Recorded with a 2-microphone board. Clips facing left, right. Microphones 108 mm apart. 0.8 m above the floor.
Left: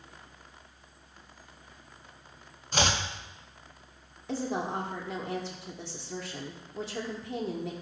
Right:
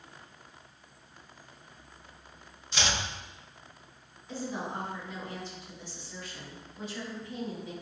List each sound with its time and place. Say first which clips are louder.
2.7 s chopping: left 4 dB; 45° left (ahead or behind), 1.0 m
4.3 s a woman speaking: left 4 dB; 75° left (ahead or behind), 1.9 m